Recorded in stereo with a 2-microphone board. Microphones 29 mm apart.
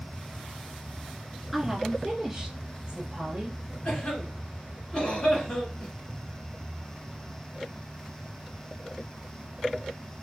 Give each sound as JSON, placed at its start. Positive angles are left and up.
{"t": 1.5, "sound": "a woman speaking", "side_deg": 0, "distance_m": 1.9}
{"t": 3.9, "sound": "a cough", "side_deg": 35, "distance_m": 1.7}